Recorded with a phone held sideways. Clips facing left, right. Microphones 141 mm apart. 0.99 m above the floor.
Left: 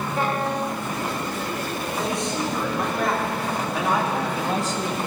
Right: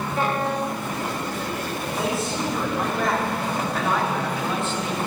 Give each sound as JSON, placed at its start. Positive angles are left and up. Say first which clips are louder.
{"t": 2.0, "sound": "a man speaking", "louder": "right 1 dB", "side_deg": -5, "distance_m": 4.0}